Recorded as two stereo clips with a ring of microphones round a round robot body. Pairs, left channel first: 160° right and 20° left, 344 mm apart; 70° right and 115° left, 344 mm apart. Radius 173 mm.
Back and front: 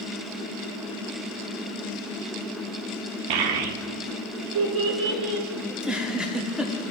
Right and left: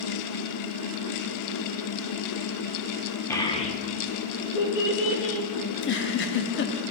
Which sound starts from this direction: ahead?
A child speaking, at 3.3 s.